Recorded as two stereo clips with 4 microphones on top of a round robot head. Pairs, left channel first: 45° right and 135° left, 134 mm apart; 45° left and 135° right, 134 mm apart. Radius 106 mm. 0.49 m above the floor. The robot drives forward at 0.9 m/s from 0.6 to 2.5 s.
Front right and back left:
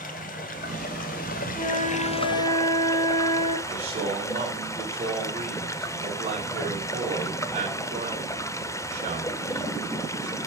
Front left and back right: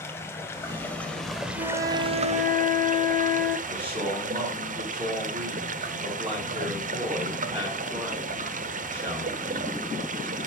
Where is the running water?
25° right, 1.6 m; by 10.5 s 115° right, 0.8 m.